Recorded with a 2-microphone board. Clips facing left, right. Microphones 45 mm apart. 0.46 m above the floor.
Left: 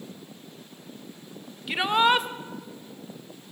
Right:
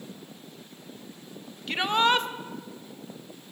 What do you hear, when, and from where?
1.7 s a shout: 10° left (ahead or behind), 1.5 m